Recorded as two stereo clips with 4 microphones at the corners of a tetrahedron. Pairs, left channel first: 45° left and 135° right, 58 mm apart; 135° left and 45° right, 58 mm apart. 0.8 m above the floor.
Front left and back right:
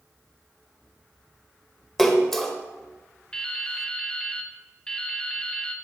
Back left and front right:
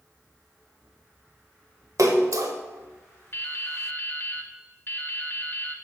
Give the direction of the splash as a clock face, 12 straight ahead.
1 o'clock.